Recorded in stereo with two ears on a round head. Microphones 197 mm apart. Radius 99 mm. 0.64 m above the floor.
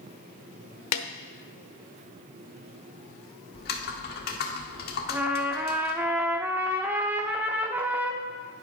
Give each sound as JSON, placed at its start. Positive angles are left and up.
{"t": 0.9, "sound": "a snare drum", "side_deg": 75, "distance_m": 0.9}
{"t": 3.5, "sound": "typing on a keyboard", "side_deg": 45, "distance_m": 1.5}
{"t": 5.1, "sound": "a trumpet", "side_deg": -10, "distance_m": 0.8}